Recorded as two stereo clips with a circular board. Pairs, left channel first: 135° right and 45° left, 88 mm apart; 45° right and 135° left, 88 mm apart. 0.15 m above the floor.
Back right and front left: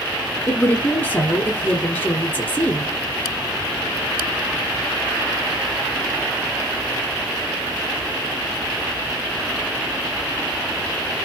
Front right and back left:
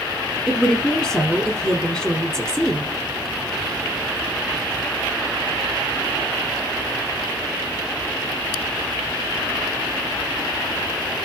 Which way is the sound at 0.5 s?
115° right.